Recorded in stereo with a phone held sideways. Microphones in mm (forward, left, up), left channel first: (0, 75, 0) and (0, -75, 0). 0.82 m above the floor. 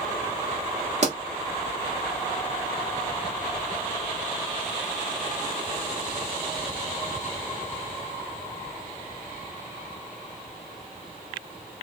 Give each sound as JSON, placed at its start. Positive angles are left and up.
{"t": 1.0, "sound": "a pop", "side_deg": -50, "distance_m": 1.5}